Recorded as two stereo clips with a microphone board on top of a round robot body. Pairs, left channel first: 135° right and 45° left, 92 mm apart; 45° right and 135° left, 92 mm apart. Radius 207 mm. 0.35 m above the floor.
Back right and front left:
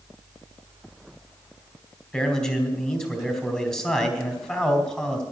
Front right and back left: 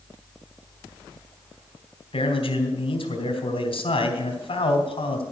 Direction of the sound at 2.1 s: 55° right.